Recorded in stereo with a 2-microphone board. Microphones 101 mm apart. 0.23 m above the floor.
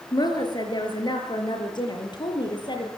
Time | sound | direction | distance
0.1 | a woman speaking | 45° left (ahead or behind) | 5 m